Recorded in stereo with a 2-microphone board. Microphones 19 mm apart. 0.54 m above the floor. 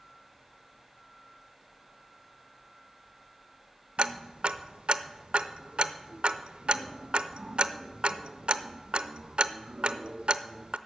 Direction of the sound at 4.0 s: 75° right (ahead or behind).